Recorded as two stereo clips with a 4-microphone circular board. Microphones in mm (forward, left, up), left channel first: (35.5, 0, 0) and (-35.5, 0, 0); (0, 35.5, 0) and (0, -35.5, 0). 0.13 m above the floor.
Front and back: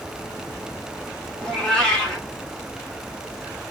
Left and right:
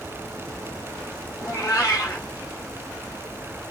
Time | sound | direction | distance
1.4 | a cat meowing | 80° left | 1.9 m